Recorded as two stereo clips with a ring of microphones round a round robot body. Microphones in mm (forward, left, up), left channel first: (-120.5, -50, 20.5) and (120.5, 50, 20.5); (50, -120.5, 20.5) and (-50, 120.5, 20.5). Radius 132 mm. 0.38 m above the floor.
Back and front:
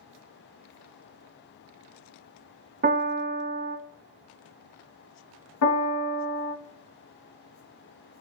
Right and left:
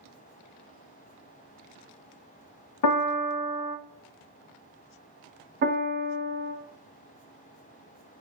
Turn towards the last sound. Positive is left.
turn(degrees=170)